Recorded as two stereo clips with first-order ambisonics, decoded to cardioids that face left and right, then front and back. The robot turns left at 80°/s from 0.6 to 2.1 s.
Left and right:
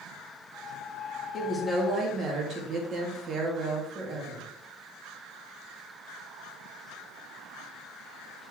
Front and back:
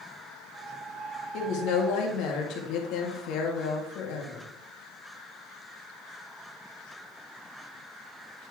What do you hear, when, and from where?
1.3 s a woman speaking: 30° left, 1.8 m; by 4.5 s 30° right, 1.8 m